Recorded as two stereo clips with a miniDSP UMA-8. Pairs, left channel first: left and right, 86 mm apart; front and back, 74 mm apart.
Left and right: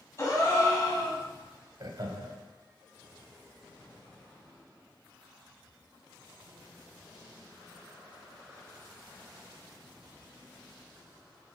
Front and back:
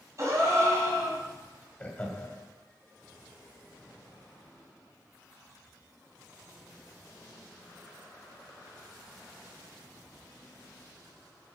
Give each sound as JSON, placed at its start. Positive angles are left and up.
{"t": 0.2, "sound": "a gasp", "azimuth_deg": 140, "distance_m": 2.5}
{"t": 1.8, "sound": "laughter", "azimuth_deg": -65, "distance_m": 1.7}